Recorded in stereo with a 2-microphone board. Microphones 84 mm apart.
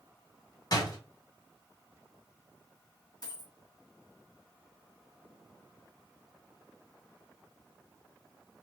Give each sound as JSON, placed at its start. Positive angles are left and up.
{"t": 0.7, "sound": "a door slam", "side_deg": 55, "distance_m": 1.3}
{"t": 3.2, "sound": "a dropped coin", "side_deg": 45, "distance_m": 1.6}